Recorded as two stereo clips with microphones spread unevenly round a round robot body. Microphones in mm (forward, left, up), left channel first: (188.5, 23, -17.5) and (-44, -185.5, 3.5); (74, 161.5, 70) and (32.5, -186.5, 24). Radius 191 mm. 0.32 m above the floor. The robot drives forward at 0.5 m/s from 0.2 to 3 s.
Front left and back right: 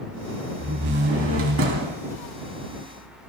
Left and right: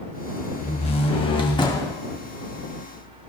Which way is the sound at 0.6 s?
160° left.